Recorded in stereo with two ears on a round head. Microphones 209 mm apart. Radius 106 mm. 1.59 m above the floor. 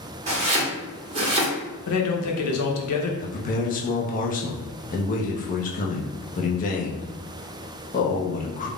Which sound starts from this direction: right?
Chopping, at 0.3 s.